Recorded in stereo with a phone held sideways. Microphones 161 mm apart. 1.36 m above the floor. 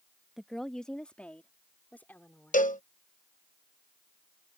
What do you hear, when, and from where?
0.4 s a woman speaking: centre (ahead or behind); by 2.6 s 15° left (ahead or behind)
2.5 s a cowbell: 55° left (ahead or behind)